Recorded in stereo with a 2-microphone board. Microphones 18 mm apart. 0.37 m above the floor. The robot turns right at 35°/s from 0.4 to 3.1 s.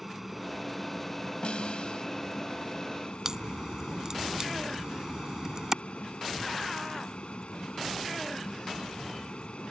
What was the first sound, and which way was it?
An aircraft, straight ahead.